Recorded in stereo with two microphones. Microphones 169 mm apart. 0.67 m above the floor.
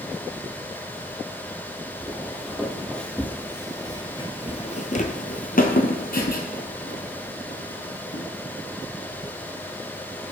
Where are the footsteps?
10° right (ahead or behind), 1.6 m; by 8.2 s 60° left (ahead or behind), 2 m.